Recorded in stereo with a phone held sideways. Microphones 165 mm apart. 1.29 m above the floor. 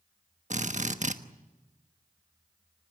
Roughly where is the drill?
Right.